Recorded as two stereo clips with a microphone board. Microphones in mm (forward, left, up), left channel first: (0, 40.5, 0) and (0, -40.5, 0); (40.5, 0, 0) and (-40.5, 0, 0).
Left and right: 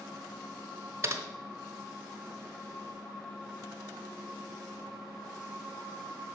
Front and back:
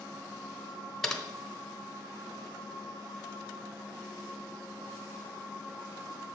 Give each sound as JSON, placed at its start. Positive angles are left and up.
{"t": 1.0, "sound": "typing on a keyboard", "azimuth_deg": -85, "distance_m": 0.8}